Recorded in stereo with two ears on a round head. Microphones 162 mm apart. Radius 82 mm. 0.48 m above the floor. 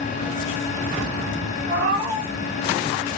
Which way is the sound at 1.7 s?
80° right.